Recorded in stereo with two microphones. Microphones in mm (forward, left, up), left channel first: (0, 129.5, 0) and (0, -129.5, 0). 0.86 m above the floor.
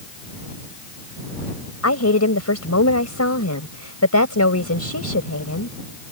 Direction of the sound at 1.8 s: 85° left.